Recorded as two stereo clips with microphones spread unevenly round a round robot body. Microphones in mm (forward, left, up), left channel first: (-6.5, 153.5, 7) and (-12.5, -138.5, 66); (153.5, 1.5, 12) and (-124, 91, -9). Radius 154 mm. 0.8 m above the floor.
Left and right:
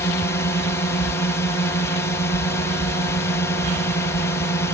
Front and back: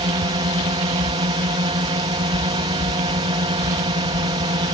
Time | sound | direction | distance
0.0 | a drone | 120° left | ?